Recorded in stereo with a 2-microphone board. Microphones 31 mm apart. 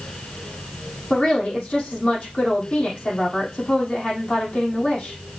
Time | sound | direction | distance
1.1 | a woman speaking | 40° left (ahead or behind) | 4.5 m